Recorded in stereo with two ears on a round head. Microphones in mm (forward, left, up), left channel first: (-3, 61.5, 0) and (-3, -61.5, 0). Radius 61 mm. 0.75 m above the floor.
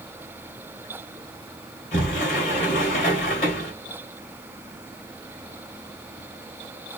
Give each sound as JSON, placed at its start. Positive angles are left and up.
{"t": 1.9, "sound": "a sliding door", "side_deg": 50, "distance_m": 3.0}